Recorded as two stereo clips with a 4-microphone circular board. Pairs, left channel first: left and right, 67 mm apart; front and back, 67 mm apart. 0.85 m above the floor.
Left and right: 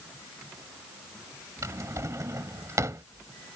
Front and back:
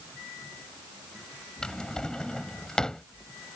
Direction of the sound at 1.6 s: 75° right.